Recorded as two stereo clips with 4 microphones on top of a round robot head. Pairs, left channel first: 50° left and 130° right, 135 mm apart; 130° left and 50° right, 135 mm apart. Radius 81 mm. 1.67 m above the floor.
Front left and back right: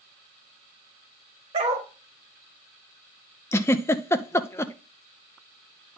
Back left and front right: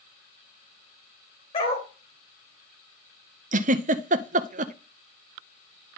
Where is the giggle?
20° right, 0.7 m.